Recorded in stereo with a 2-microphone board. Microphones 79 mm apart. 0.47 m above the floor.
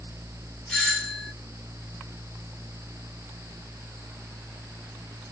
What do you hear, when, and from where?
0.7 s a doorbell: 15° left (ahead or behind), 6 m